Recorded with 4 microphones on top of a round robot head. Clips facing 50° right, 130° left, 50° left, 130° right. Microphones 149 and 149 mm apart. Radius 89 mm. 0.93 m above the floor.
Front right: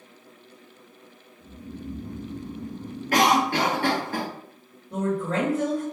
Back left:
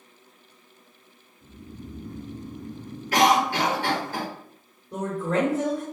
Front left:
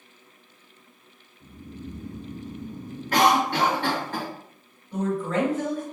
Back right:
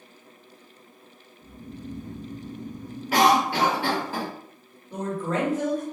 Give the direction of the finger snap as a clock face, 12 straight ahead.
No finger snap in this recording.